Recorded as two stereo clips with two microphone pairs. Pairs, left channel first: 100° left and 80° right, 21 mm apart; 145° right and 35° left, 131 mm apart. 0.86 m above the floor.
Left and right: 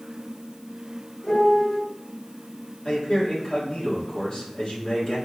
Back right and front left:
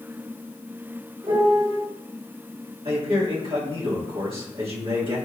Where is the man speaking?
65° left, 1.9 m.